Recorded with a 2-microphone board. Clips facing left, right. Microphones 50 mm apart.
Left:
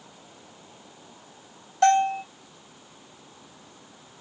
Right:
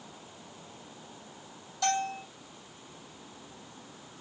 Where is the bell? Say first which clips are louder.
Left 11 dB; 50° left (ahead or behind), 2.5 m.